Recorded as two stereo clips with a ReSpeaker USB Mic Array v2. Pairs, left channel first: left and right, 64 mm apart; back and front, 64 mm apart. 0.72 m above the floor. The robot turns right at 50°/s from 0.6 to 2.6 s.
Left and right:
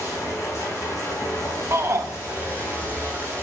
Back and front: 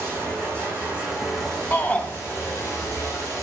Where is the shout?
130° right, 1.0 m; by 2.1 s 115° right, 1.0 m.